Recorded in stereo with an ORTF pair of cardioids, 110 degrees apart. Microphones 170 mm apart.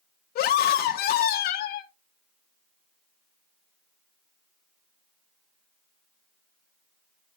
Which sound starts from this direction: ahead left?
A scream, at 0.3 s.